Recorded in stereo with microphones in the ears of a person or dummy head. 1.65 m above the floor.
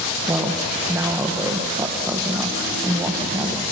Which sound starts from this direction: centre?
A woman speaking, at 0.3 s.